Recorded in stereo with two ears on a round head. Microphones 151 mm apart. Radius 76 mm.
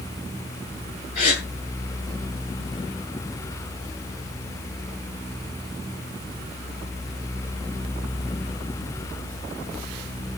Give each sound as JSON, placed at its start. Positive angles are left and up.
{"t": 1.1, "sound": "a gasp", "side_deg": 50, "distance_m": 9.5}